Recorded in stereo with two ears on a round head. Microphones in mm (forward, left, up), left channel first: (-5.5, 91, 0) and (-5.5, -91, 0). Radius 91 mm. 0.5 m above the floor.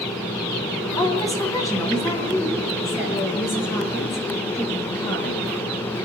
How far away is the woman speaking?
About 3.5 m.